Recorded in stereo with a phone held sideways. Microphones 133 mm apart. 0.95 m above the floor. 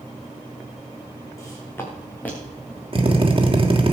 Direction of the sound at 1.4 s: 25° left (ahead or behind).